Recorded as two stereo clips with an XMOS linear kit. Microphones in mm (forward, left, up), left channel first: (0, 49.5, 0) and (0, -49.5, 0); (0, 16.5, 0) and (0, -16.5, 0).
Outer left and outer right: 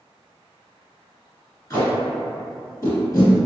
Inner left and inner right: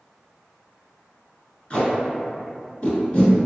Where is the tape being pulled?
35° left (ahead or behind), 1.3 m.